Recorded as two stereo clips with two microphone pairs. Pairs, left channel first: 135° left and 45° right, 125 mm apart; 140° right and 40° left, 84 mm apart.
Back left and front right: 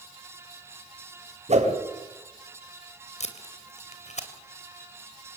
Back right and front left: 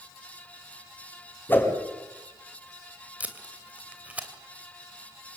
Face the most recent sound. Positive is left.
turn(degrees=115)